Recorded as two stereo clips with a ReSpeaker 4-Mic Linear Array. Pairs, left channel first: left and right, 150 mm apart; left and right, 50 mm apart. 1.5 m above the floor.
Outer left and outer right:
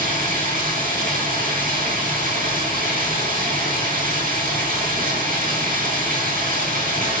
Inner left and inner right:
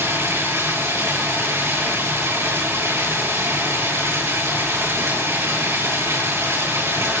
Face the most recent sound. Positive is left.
turn(degrees=-70)  # may be behind; listen again after turning